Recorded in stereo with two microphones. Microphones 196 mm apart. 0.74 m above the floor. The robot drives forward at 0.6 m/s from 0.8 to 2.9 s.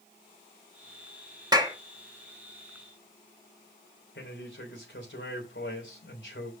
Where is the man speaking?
75° left (ahead or behind), 3 m.